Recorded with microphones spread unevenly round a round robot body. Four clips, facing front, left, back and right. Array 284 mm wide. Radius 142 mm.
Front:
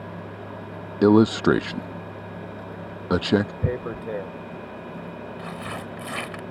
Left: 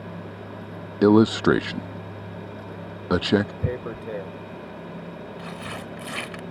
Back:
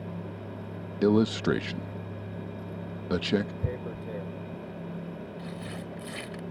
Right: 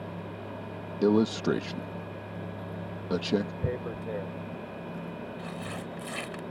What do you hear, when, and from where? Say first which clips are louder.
1.0 s a man speaking: left 8 dB, front 7 dB; 40° left
3.6 s tearing paper: left 3 dB, front 7 dB; 25° left